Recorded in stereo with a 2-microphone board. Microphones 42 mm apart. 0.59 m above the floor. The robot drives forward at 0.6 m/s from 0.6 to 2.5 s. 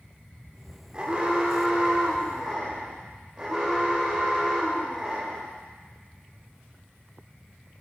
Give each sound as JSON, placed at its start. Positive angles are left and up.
{"t": 0.9, "sound": "an alarm", "side_deg": -25, "distance_m": 1.2}